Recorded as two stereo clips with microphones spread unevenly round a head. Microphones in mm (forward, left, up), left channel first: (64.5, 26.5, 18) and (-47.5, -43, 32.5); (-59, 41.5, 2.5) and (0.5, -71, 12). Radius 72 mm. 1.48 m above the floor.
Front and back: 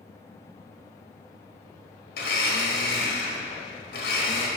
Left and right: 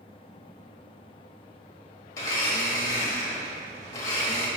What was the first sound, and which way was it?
A blender, 50° left.